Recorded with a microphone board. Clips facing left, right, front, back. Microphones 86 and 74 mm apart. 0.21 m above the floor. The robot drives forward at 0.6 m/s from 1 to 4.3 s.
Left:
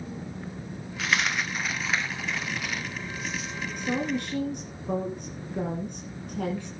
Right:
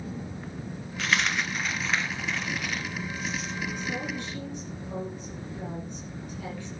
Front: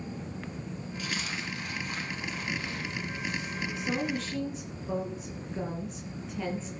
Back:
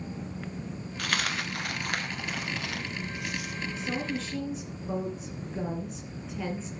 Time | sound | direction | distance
1.0 | a dropped coin | straight behind | 1.4 m
3.8 | a woman speaking | 85° left | 2.5 m